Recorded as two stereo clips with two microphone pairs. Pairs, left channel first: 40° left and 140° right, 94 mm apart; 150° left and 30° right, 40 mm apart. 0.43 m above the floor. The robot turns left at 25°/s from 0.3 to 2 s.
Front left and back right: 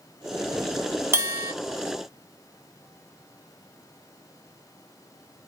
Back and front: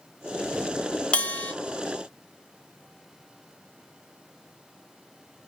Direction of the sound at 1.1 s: 170° right.